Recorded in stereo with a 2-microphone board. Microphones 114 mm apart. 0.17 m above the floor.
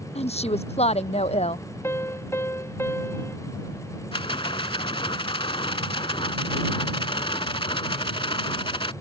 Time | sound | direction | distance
0.1 | a woman speaking | 65° left (ahead or behind) | ?
1.8 | a piano | 20° left (ahead or behind) | ?
4.1 | a rattle | 50° left (ahead or behind) | ?